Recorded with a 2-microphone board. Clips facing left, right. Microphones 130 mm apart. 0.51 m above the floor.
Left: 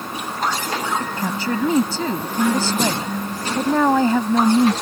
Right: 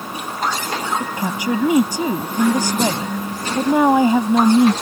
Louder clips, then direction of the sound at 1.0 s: Right 1 dB; 15° right (ahead or behind).